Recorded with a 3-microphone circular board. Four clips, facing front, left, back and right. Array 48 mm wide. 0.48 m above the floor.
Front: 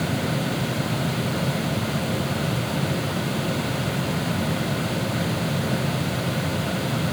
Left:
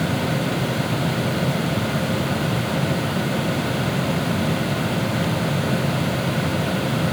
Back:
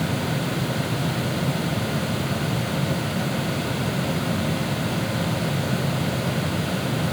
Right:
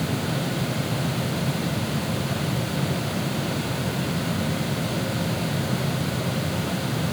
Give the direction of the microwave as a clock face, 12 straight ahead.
I don't hear a microwave.